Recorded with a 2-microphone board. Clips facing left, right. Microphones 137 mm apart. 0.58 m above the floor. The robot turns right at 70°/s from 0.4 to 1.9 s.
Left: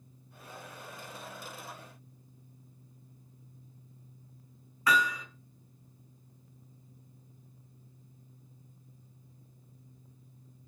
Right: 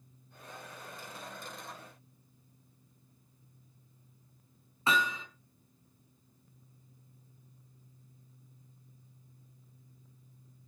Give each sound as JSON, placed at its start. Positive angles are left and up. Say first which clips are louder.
{"t": 4.9, "sound": "hammering", "louder": "left 2 dB", "side_deg": -25, "distance_m": 3.5}